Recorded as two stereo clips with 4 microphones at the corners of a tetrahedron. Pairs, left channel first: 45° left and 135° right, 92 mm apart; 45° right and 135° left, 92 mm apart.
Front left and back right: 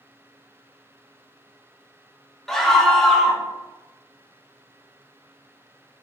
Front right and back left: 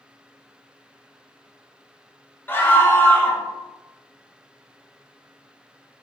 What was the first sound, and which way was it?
A scream, 40° right.